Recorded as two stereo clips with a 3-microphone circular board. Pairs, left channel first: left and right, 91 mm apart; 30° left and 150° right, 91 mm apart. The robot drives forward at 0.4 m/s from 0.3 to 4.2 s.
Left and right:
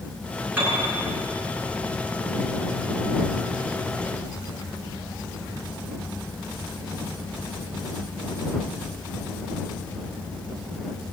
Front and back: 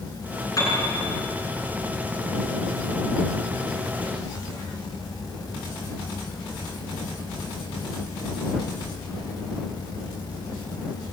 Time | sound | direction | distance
0.6 | a piano | 25° right | 8 m